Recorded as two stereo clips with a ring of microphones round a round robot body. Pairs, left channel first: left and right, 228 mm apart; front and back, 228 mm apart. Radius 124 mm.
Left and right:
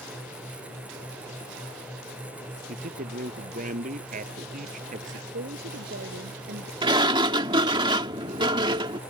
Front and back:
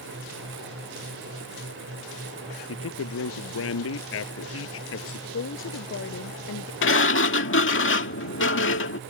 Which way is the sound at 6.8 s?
20° right.